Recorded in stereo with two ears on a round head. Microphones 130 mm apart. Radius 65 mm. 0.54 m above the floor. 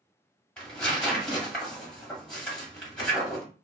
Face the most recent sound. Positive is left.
turn(degrees=5)  # may be behind; listen again after turning